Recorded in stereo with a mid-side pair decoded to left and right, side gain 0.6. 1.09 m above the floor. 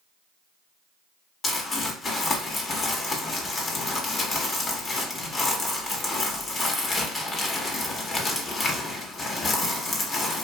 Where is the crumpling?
35° left, 0.9 m.